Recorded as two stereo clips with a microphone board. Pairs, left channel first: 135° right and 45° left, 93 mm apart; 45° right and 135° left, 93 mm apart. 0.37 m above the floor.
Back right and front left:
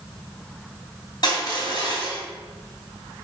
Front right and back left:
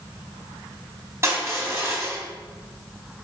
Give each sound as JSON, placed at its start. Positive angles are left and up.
{"t": 1.2, "sound": "crushing", "azimuth_deg": -170, "distance_m": 2.5}